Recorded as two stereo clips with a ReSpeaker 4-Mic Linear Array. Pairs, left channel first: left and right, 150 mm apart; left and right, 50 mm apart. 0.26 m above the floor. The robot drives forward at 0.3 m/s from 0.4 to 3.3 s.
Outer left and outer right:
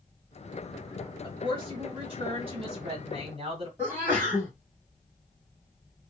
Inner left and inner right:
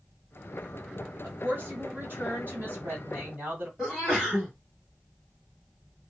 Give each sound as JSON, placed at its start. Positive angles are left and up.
{"t": 1.2, "sound": "a woman speaking", "side_deg": -40, "distance_m": 1.9}
{"t": 3.8, "sound": "a sneeze", "side_deg": -15, "distance_m": 2.0}